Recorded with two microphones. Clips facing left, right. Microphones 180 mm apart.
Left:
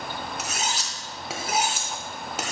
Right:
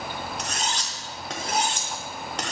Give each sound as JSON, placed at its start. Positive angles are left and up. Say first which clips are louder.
{"t": 0.4, "sound": "cutlery clinking", "louder": "even", "side_deg": 5, "distance_m": 0.7}